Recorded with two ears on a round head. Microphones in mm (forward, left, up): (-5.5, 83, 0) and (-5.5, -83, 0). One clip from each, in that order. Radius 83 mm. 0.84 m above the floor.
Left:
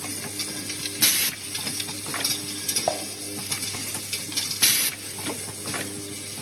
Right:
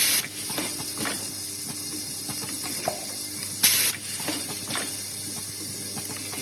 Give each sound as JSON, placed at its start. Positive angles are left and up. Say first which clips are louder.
{"t": 2.9, "sound": "dishes clattering", "louder": "left 3 dB", "side_deg": 30, "distance_m": 0.8}